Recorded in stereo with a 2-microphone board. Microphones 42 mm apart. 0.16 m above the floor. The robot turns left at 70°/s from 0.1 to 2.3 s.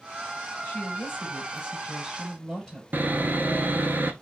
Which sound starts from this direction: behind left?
A woman speaking, at 0.6 s.